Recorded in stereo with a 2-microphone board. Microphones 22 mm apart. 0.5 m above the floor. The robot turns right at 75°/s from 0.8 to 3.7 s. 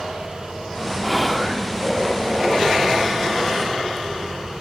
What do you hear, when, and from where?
1.0 s whispering: 5° left (ahead or behind), 0.7 m; by 1.7 s 15° left (ahead or behind), 0.7 m